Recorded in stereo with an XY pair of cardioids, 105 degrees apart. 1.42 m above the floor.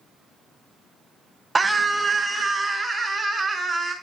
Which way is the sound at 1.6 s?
20° right.